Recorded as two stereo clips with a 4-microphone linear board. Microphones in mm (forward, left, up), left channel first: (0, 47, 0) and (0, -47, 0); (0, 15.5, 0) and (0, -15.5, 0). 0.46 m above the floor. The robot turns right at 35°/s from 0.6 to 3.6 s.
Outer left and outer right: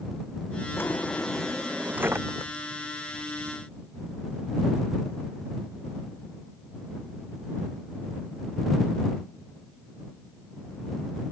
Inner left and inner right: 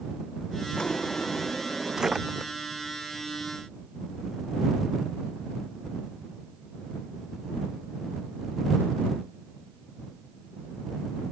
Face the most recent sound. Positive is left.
turn(degrees=-105)